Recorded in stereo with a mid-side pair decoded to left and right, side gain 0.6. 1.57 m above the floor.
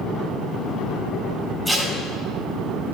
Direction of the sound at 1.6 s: Straight ahead.